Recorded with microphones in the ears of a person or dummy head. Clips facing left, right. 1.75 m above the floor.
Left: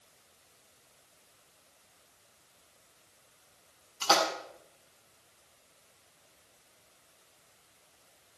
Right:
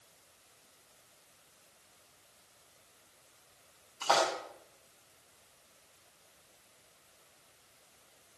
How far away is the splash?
About 5 m.